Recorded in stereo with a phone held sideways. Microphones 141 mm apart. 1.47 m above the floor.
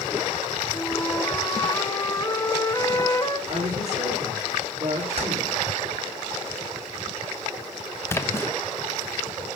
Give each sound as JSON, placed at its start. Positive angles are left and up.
{"t": 0.7, "sound": "a flute", "side_deg": 30, "distance_m": 1.9}
{"t": 3.5, "sound": "a woman speaking", "side_deg": -45, "distance_m": 5.5}
{"t": 5.2, "sound": "keys jangling", "side_deg": -50, "distance_m": 6.0}
{"t": 8.1, "sound": "a splash", "side_deg": 20, "distance_m": 1.0}